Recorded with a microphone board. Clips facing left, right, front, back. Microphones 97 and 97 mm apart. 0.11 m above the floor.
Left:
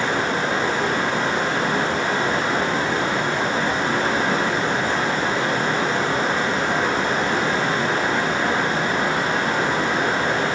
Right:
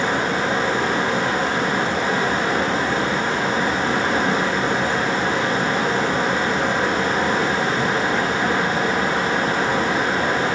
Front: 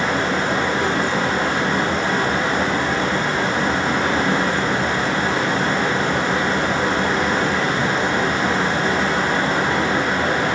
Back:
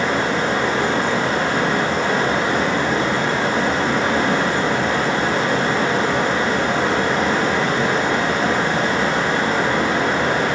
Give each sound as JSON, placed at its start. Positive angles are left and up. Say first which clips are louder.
{"t": 0.0, "sound": "running water", "louder": "right 1 dB, back 1 dB", "azimuth_deg": -170, "distance_m": 4.0}